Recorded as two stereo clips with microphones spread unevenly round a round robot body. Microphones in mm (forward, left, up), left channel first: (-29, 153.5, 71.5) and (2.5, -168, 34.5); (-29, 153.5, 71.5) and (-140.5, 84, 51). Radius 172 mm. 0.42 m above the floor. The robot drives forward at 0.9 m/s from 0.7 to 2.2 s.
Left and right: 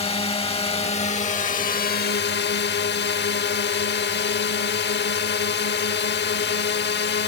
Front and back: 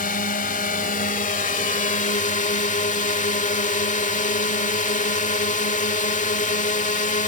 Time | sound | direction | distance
0.0 | a drone | 20° left | ?